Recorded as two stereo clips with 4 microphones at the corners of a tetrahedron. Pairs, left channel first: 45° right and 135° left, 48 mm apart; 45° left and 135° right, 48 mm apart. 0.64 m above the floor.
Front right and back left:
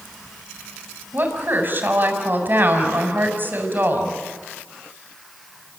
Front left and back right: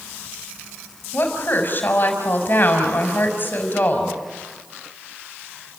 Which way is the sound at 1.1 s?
90° left.